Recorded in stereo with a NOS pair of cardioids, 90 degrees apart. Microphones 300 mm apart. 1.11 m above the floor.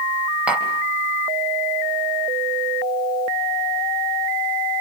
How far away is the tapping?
About 3.5 m.